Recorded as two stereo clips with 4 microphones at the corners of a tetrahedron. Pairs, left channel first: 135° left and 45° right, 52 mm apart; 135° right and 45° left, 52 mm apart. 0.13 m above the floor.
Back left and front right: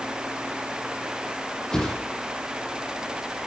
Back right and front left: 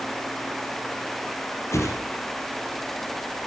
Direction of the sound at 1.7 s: 150° right.